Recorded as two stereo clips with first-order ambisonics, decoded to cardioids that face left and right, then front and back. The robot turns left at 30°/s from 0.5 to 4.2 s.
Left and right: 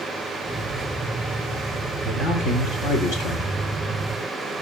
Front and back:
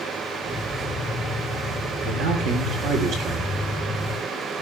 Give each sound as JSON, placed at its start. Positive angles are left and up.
{"t": 2.0, "sound": "a man speaking", "azimuth_deg": 165, "distance_m": 3.5}